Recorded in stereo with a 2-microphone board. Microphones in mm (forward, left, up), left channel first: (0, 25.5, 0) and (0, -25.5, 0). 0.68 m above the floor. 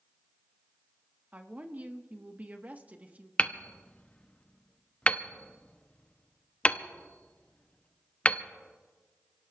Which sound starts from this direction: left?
Hammering, at 3.4 s.